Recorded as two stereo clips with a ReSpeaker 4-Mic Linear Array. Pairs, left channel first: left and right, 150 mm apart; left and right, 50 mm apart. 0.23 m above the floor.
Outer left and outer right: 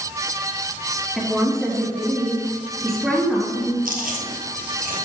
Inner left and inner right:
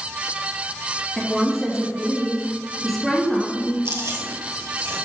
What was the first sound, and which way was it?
A woman speaking, centre (ahead or behind).